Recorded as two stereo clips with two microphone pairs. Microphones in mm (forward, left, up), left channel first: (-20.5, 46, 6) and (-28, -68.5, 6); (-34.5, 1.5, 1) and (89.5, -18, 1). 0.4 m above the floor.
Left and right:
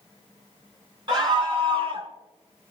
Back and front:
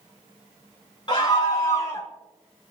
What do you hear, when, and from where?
1.1 s a scream: 135° right, 4 m; by 2.1 s 125° right, 2.5 m